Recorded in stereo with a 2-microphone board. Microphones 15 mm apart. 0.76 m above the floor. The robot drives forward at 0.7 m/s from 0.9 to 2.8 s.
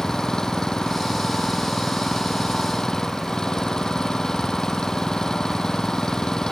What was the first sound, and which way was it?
An engine running, 40° left (ahead or behind).